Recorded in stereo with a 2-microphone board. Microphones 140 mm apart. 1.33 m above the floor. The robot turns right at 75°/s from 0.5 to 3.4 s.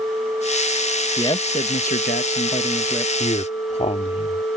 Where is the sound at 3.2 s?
65° left (ahead or behind); by 4.6 s 50° left (ahead or behind).